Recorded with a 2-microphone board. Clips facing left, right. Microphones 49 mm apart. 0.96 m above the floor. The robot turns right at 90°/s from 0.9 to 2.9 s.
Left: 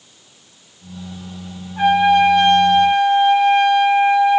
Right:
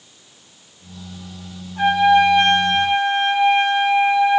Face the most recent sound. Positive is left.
turn(degrees=-20)  # may be behind; listen again after turning